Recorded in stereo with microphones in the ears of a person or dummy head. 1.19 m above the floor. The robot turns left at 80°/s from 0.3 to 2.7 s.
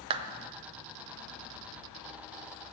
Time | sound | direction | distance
0.1 | a clap | 30° right (ahead or behind) | 0.5 m